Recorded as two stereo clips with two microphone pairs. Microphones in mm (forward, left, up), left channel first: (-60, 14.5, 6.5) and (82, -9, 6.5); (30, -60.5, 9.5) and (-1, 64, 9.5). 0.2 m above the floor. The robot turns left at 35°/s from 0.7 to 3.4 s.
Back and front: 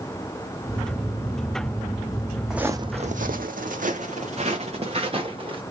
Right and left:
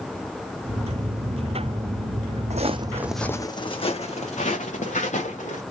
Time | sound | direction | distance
2.5 | footsteps | 75° left | 0.8 m